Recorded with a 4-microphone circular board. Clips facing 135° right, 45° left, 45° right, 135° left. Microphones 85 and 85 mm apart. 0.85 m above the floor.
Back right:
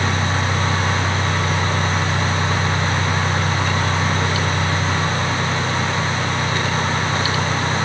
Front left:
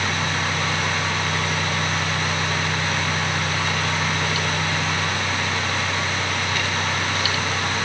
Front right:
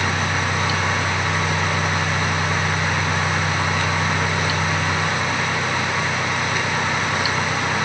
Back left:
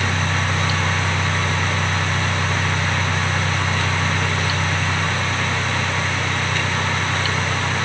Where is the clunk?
I don't hear a clunk.